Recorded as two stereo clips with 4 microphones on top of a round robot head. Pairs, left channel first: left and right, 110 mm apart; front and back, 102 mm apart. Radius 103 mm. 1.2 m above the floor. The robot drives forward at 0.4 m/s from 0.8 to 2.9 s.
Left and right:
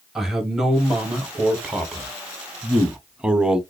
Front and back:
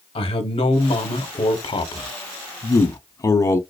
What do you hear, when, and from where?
0.1 s a man speaking: 5° right, 1.3 m; by 3.6 s 20° right, 0.7 m